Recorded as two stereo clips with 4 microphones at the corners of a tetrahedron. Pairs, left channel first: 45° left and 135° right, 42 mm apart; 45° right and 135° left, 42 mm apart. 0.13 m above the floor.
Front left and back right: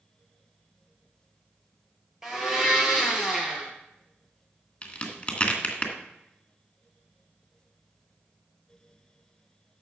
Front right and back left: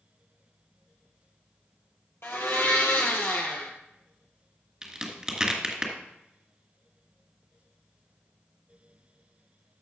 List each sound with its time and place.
2.2 s a blender: 55° right, 2 m
4.8 s a crack: 75° left, 1.9 m